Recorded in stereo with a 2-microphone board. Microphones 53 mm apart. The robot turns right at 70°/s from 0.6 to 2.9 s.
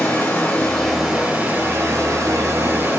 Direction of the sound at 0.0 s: 155° left.